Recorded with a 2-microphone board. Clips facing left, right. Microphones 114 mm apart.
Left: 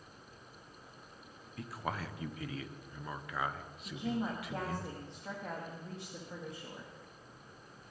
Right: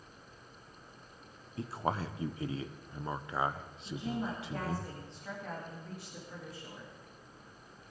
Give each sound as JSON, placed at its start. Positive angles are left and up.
{"t": 1.6, "sound": "a man speaking", "side_deg": -30, "distance_m": 0.8}
{"t": 3.9, "sound": "a woman speaking", "side_deg": 25, "distance_m": 2.5}